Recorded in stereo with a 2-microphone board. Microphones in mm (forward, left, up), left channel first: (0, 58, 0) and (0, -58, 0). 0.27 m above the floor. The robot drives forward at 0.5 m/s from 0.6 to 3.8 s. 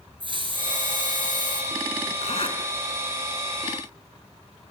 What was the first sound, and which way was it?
A hiss, 45° right (ahead or behind).